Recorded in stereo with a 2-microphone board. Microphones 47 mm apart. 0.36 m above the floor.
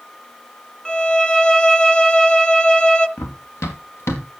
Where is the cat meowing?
I don't hear a cat meowing.